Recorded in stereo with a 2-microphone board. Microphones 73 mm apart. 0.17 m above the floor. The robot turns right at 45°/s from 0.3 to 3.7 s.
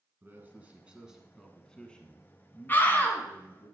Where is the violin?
I don't hear a violin.